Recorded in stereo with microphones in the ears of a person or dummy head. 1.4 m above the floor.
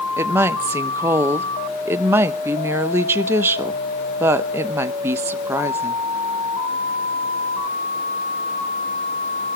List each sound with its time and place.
0.2 s a woman speaking: 15° right (ahead or behind), 1.0 m